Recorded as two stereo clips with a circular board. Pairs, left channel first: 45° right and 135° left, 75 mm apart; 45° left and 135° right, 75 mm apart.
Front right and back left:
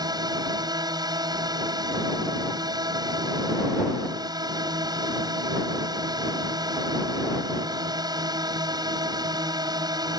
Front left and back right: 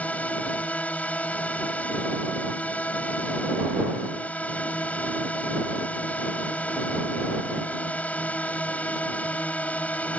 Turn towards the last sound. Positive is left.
turn(degrees=115)